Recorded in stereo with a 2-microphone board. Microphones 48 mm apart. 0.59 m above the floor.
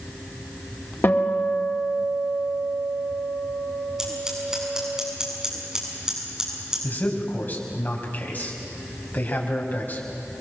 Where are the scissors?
10° right (ahead or behind), 6.5 m.